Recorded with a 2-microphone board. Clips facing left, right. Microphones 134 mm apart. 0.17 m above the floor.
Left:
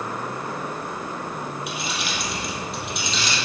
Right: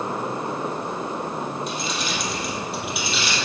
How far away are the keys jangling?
About 3.5 m.